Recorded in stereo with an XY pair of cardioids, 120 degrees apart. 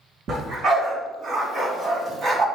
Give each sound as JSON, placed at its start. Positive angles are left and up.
{"t": 0.3, "sound": "a dog barking", "azimuth_deg": -50, "distance_m": 3.0}